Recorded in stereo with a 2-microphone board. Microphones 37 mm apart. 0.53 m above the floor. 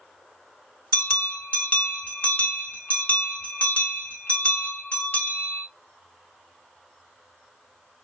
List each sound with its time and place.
0.9 s a bell: 45° left (ahead or behind), 2.0 m